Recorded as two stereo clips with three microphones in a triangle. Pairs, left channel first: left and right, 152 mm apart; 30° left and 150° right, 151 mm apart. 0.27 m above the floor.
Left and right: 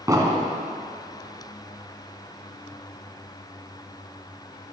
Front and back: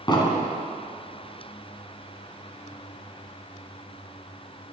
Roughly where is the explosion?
Ahead right.